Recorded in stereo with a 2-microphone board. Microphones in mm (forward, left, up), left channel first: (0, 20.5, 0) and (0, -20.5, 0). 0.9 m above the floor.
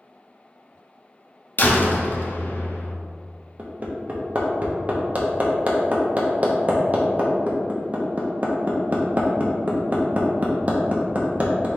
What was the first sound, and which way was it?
A door slam, 45° left (ahead or behind).